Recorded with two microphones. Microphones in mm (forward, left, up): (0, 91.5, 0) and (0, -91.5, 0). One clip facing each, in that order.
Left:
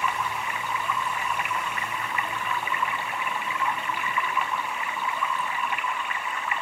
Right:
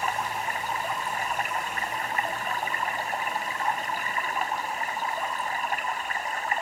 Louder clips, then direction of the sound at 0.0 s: Even; 40° right (ahead or behind).